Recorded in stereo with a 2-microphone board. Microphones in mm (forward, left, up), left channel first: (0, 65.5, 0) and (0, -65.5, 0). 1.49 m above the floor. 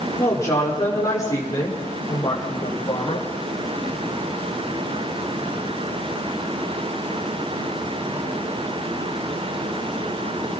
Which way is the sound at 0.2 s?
20° left (ahead or behind).